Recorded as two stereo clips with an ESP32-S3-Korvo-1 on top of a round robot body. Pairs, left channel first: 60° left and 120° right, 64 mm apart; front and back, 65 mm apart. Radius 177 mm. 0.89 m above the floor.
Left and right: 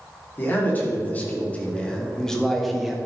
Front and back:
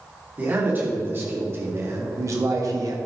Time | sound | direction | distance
0.4 | a man speaking | 120° left | 3 m